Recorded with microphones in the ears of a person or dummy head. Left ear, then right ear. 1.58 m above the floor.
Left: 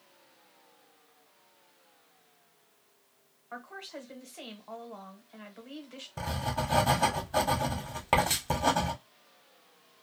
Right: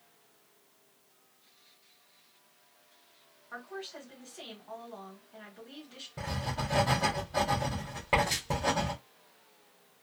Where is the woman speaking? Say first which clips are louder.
Even; 25° left (ahead or behind), 1.1 m.